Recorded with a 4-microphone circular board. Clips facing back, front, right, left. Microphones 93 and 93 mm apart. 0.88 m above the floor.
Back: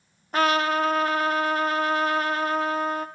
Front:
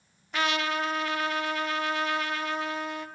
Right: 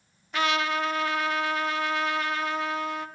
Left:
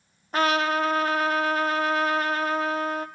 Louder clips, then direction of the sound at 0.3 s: Back 6 dB, left 3 dB; 135° left.